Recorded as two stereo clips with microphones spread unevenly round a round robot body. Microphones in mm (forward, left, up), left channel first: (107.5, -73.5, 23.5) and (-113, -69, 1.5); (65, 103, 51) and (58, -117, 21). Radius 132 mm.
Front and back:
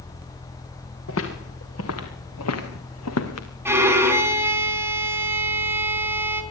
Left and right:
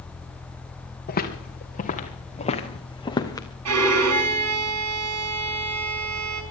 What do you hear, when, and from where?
1.1 s footsteps: 40° left, 3.5 m; by 3.5 s 15° left, 2.5 m
3.6 s a violin: 100° right, 4 m